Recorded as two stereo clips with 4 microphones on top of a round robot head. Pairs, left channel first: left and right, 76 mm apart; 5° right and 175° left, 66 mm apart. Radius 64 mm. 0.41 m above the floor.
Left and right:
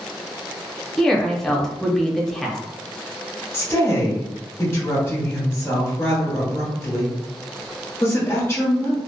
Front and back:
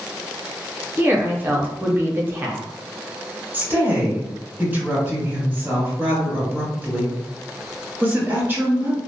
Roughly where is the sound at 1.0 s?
Behind.